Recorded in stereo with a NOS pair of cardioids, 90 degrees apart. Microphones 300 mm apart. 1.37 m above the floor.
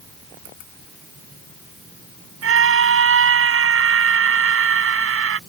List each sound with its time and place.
2.4 s a scream: 45° right